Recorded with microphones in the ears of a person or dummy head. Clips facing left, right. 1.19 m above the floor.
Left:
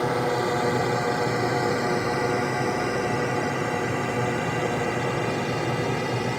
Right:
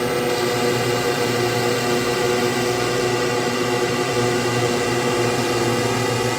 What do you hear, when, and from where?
0.0 s a drone: 40° right (ahead or behind); by 6.4 s 70° right (ahead or behind)